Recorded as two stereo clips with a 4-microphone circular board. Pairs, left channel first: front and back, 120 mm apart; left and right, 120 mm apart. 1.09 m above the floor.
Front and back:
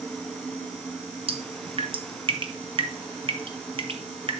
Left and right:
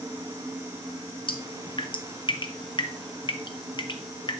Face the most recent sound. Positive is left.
turn(degrees=140)